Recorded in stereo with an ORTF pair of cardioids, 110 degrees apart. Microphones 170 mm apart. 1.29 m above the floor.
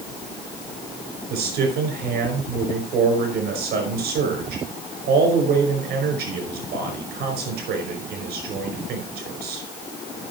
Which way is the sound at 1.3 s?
65° right.